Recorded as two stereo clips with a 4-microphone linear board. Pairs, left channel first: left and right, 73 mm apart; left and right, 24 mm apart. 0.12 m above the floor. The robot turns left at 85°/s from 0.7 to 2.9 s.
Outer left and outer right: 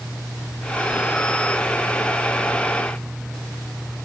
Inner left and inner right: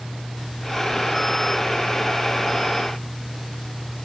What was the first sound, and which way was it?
Only background noise.